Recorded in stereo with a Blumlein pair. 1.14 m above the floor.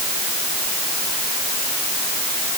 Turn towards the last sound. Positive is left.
No sound to turn to.